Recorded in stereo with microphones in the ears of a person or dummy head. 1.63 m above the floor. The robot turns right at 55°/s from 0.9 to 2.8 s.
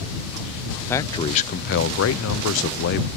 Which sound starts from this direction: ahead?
A man speaking, at 0.9 s.